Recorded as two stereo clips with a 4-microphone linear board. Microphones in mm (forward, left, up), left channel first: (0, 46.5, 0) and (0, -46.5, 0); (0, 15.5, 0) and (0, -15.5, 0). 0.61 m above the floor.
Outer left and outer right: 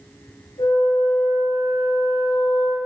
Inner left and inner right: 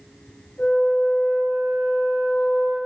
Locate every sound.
0.6 s a flute: 70° left (ahead or behind), 1.6 m